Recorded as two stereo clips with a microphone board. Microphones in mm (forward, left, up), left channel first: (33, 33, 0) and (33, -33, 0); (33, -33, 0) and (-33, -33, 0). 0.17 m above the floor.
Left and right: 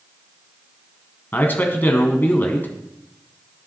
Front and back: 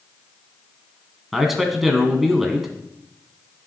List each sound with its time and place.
1.3 s a man speaking: 95° left, 1.2 m